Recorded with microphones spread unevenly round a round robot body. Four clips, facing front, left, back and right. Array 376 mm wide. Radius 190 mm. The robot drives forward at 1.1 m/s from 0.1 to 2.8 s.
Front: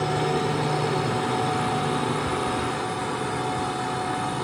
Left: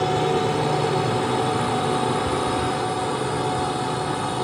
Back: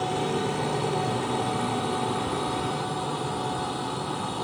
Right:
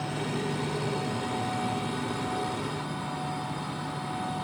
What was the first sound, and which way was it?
A drone, 75° left.